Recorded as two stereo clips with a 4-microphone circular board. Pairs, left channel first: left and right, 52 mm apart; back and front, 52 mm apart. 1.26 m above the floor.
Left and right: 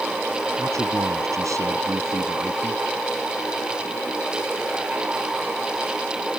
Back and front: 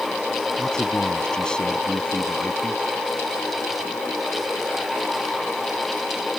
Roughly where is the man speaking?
Right.